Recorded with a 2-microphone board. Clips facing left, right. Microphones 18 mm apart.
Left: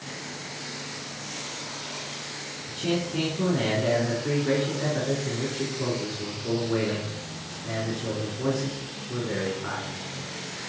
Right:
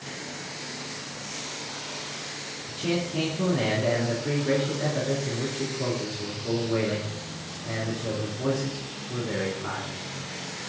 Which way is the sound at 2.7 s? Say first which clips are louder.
Even; 20° left (ahead or behind).